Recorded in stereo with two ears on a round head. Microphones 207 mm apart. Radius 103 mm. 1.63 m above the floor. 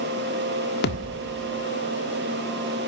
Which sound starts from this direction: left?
A thud, at 0.8 s.